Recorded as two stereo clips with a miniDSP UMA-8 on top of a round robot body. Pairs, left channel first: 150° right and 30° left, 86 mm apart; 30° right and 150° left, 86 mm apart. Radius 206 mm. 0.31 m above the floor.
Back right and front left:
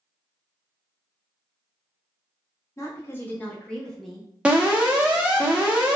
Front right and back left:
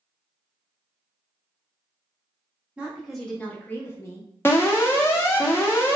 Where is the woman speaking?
140° right, 1.1 m; by 4.3 s 55° right, 1.2 m.